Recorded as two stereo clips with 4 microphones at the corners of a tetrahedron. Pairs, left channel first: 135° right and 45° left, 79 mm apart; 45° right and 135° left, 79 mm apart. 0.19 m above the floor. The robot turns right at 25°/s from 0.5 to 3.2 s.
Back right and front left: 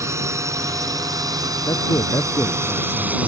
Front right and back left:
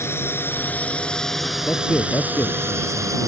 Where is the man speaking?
115° right; by 3.3 s 80° right.